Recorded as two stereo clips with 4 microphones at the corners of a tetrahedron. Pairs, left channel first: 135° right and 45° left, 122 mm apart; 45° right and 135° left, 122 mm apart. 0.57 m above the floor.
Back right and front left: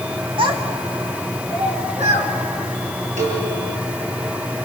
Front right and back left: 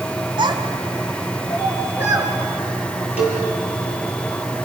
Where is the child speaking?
85° left, 2.5 m; by 2.3 s 60° left, 4.5 m.